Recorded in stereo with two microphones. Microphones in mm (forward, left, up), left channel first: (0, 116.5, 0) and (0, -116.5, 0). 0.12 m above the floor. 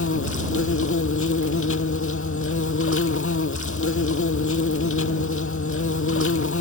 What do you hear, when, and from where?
0.0 s an insect: 65° left (ahead or behind)